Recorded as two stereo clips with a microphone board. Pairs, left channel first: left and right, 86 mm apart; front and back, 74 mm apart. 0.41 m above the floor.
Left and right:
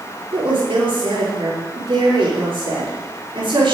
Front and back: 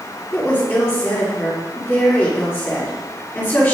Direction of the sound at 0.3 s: 65° right.